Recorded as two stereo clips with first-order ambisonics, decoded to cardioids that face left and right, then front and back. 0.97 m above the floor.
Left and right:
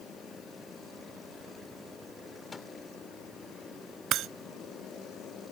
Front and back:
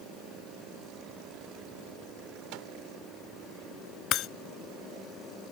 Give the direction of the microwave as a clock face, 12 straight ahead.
6 o'clock.